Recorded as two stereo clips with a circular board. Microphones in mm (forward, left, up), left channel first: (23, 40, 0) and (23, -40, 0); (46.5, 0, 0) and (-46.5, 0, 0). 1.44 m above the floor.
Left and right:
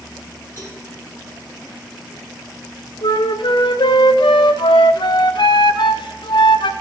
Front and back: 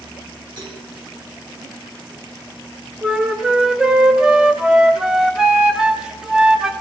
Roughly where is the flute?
Left.